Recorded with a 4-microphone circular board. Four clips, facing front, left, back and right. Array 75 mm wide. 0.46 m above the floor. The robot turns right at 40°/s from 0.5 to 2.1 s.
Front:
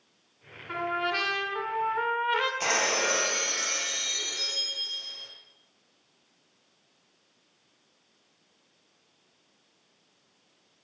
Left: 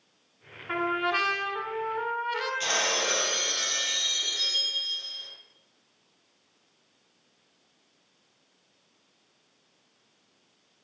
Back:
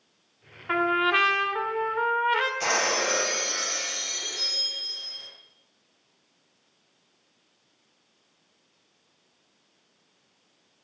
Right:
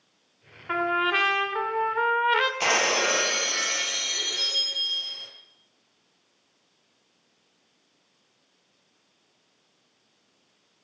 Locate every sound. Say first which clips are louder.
0.7 s a trumpet: right 3 dB, back 7 dB; 160° right, 1.9 m; by 2.5 s 100° right, 1.9 m
2.6 s breaking glass: right 5 dB, back 1 dB; 85° right, 3 m